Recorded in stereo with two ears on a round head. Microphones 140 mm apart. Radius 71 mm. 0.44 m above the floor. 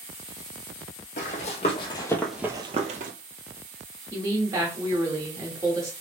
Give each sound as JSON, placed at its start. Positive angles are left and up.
{"t": 1.2, "sound": "running footsteps", "side_deg": 50, "distance_m": 1.1}
{"t": 4.1, "sound": "a woman speaking", "side_deg": -20, "distance_m": 1.3}